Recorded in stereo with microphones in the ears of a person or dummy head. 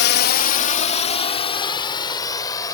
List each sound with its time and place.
0.0 s a drone: 50° left (ahead or behind); by 2.7 s 15° left (ahead or behind)